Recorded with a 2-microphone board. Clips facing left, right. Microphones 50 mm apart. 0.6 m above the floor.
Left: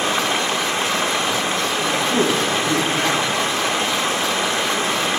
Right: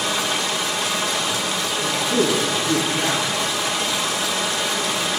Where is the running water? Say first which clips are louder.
Left 3 dB; 35° left (ahead or behind), 0.9 m.